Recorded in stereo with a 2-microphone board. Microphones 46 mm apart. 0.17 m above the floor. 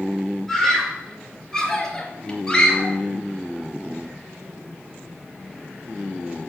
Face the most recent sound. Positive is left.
turn(degrees=15)  # may be behind; listen again after turning